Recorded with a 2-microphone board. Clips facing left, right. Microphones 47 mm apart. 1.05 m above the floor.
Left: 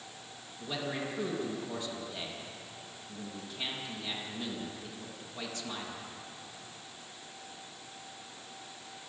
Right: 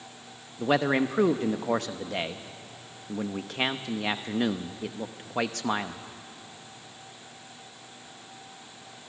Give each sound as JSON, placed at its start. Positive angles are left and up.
{"t": 0.6, "sound": "a man speaking", "side_deg": -70, "distance_m": 0.9}